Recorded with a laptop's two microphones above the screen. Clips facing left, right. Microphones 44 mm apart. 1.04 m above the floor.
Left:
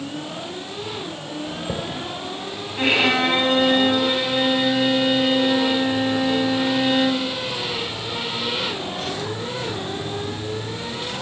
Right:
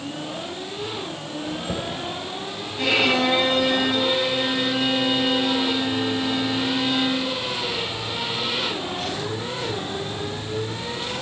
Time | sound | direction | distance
1.5 | a chime | 20° left (ahead or behind) | 3 m
2.8 | a violin | 35° left (ahead or behind) | 3 m